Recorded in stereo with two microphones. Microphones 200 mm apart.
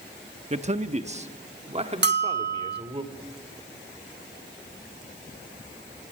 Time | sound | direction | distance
0.5 | a man speaking | 30° right (ahead or behind) | 1.0 m
2.0 | a bell | 55° right (ahead or behind) | 0.9 m